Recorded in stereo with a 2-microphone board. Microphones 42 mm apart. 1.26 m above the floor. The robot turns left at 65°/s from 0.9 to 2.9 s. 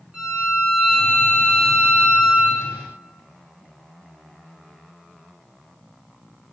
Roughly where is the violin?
Ahead.